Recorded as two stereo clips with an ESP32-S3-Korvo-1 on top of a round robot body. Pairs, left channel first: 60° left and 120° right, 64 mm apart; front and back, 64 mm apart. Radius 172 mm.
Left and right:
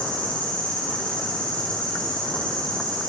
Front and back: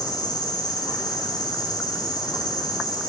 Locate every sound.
0.0 s an insect: 15° right, 8 m